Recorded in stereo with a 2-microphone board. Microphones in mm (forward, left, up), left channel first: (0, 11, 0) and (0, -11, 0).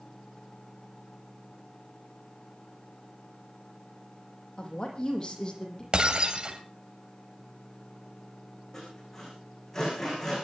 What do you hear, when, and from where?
4.6 s a woman speaking: 40° left (ahead or behind), 5.5 m; by 5.8 s 30° left (ahead or behind), 5 m
5.9 s breaking glass: 55° right (ahead or behind), 4.5 m
8.7 s sawing: 20° left (ahead or behind), 10 m